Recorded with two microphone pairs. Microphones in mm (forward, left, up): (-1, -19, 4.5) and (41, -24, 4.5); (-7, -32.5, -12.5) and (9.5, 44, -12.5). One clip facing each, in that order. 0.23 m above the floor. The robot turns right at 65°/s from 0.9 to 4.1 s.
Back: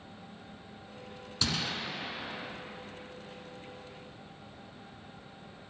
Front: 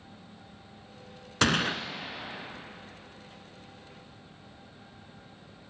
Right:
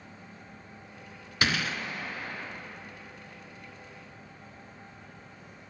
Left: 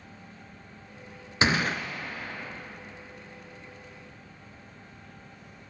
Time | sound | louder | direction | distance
1.4 | a gunshot | front 8 dB, left 4 dB | 10° left | 0.8 m